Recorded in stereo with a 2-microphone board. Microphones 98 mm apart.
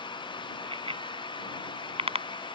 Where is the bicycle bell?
60° right (ahead or behind); by 2.6 s 85° right.